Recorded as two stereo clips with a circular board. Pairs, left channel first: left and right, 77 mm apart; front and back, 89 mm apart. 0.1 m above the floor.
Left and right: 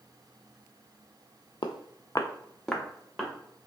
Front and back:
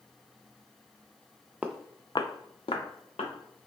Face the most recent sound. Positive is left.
turn(degrees=-5)